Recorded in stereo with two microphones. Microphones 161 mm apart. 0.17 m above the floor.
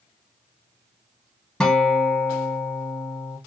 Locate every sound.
1.6 s a guitar: 5° left (ahead or behind), 0.8 m